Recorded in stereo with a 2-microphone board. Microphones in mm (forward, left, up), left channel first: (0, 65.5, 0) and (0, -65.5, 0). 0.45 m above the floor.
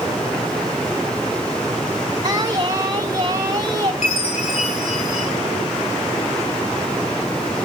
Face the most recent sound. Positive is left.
turn(degrees=65)  # may be behind; listen again after turning